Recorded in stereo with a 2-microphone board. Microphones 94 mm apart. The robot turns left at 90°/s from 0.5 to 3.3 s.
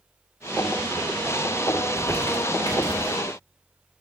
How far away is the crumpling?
About 2.5 m.